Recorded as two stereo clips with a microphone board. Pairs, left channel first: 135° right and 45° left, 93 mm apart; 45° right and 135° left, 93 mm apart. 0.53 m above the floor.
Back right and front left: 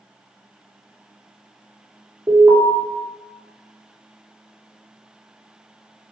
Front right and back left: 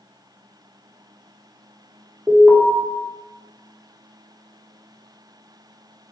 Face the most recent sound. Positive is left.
turn(degrees=75)